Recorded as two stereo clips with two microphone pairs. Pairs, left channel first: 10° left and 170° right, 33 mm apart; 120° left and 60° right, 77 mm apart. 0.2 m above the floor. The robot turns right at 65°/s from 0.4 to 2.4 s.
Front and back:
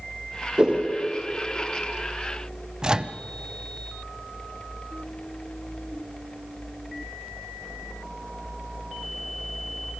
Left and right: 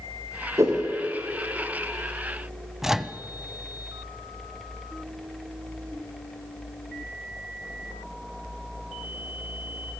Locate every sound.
0.6 s a whoosh: 115° right, 4.5 m; by 0.8 s 100° right, 4.5 m
2.8 s a microwave: 130° right, 0.8 m